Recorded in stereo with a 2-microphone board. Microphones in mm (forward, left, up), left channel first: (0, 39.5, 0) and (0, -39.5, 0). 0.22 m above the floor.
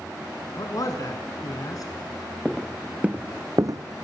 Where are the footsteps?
5° right (ahead or behind), 0.9 m; by 4.0 s 70° right (ahead or behind), 0.5 m.